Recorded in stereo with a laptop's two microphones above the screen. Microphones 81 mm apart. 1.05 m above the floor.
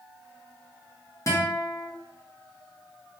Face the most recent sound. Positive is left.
turn(degrees=35)  # may be behind; listen again after turning